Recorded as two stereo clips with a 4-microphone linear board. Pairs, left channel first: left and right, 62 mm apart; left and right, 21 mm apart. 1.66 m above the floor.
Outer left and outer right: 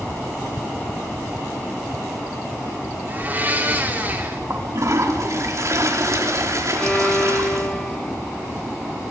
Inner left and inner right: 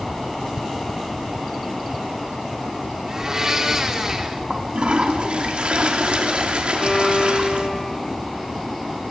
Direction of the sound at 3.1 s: 30° right (ahead or behind).